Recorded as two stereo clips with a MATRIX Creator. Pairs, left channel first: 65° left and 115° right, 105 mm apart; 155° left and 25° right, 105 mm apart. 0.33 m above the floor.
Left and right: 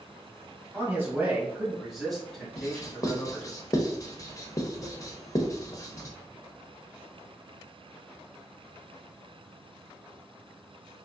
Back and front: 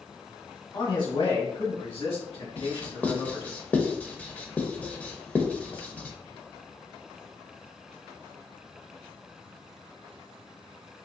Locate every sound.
0.7 s a man speaking: 175° right, 1.5 m; by 3.6 s 145° left, 2.5 m
2.6 s writing: 95° left, 0.6 m